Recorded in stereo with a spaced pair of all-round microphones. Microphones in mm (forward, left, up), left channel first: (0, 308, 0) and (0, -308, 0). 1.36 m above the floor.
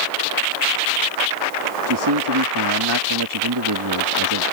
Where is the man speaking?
40° right (ahead or behind).